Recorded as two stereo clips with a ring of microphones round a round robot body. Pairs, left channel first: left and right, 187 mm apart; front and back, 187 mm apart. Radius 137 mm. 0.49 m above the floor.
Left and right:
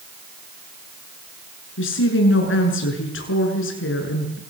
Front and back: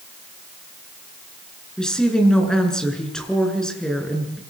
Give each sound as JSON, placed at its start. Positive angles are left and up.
{"t": 1.8, "sound": "a woman speaking", "azimuth_deg": 85, "distance_m": 7.0}